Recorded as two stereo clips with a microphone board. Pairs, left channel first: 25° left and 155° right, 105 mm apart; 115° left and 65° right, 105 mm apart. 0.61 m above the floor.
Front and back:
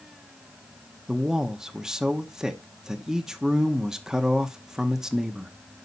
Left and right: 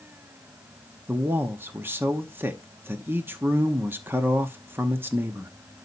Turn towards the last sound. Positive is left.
turn(degrees=-80)